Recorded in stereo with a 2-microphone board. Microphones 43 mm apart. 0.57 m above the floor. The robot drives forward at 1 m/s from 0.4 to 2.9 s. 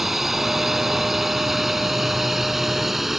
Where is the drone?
5° right (ahead or behind).